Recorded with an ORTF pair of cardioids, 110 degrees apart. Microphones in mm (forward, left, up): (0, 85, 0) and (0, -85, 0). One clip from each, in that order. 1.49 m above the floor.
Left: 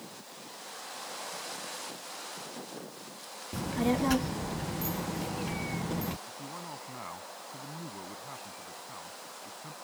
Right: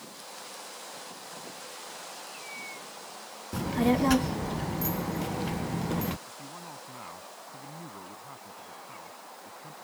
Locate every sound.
3.5 s a child speaking: 15° right
6.3 s a man speaking: 15° left